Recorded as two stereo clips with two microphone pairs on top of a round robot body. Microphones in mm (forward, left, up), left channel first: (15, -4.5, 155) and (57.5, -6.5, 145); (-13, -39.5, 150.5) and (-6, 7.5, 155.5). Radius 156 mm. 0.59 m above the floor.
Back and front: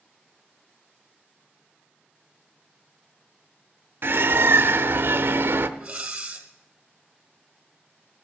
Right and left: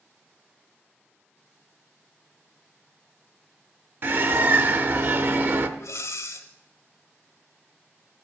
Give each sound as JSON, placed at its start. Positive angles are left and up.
{"t": 4.0, "sound": "a bird", "azimuth_deg": 35, "distance_m": 0.6}
{"t": 5.8, "sound": "breathing", "azimuth_deg": -80, "distance_m": 0.9}